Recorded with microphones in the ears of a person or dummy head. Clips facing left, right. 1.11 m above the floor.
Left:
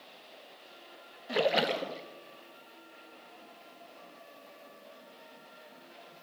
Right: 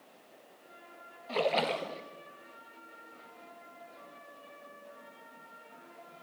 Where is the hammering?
I don't hear hammering.